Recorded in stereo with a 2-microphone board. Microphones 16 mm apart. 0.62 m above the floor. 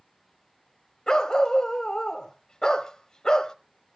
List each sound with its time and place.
1.1 s a dog barking: 50° left (ahead or behind), 1.4 m